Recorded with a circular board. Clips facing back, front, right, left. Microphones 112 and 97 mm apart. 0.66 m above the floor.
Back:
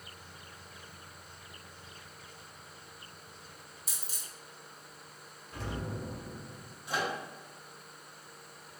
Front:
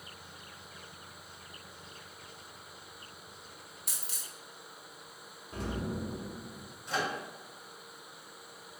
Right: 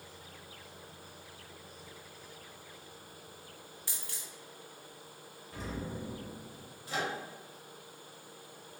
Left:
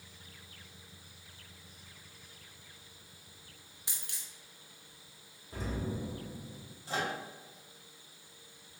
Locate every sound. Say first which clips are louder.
3.9 s a dropped coin: front 1 dB, even; 20° left, 0.6 m
5.5 s an explosion: front 3 dB, left 2 dB; 40° left, 1.0 m
6.9 s a microwave: even, even; 105° left, 0.9 m